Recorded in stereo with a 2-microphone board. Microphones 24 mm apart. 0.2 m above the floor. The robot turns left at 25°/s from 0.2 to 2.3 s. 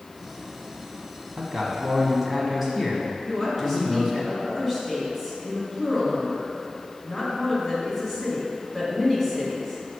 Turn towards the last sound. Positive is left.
turn(degrees=-5)  # may be behind; listen again after turning